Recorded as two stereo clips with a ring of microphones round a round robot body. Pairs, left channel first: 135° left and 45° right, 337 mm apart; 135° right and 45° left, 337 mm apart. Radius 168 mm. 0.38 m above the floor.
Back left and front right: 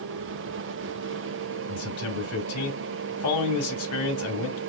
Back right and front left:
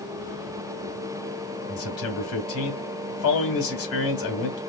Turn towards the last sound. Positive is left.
turn(degrees=180)